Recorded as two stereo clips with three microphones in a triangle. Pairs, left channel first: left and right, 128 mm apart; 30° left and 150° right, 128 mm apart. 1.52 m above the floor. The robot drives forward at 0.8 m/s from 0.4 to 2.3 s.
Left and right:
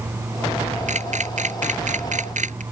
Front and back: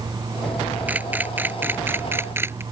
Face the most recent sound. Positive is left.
turn(degrees=-80)